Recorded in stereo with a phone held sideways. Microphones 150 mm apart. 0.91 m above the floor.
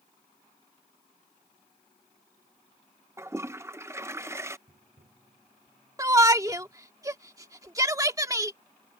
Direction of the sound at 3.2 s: 15° right (ahead or behind).